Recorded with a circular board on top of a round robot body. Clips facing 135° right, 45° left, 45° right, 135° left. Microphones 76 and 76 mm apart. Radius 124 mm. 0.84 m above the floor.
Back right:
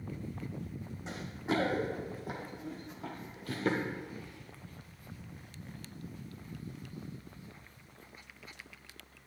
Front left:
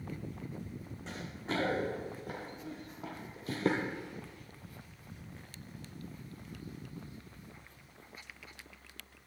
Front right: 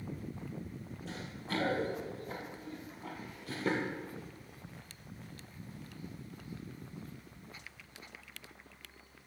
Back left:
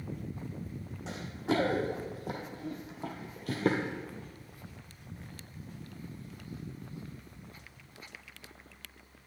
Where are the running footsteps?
150° left, 2.5 m; by 3.9 s 80° left, 0.9 m.